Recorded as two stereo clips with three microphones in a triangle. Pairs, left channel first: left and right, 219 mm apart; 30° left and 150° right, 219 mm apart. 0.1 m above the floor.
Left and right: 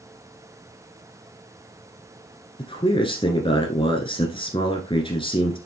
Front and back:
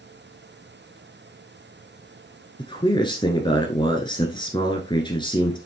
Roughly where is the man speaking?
Ahead left.